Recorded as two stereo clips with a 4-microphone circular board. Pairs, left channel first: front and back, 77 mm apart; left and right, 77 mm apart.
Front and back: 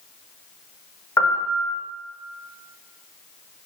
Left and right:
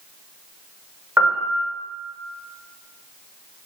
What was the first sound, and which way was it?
A piano, 35° right.